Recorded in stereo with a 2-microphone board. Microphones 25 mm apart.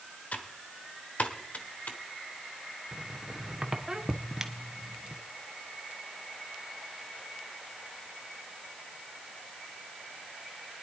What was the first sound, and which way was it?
Typing on a keyboard, 70° left (ahead or behind).